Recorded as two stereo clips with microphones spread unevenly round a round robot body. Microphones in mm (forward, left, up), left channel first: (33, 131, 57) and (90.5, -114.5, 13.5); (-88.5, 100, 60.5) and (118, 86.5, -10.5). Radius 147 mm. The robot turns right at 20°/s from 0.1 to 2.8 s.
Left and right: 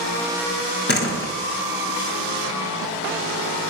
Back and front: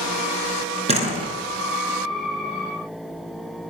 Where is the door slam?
55° left, 3.5 m; by 1.3 s 60° left, 3.5 m.